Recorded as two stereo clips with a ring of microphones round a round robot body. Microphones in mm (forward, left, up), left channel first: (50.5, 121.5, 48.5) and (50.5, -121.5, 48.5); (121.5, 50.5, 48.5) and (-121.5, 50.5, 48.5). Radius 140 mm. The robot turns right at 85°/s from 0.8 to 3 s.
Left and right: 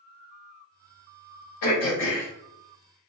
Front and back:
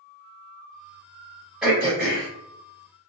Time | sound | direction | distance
1.6 | throat clearing | 95° left | 1.3 m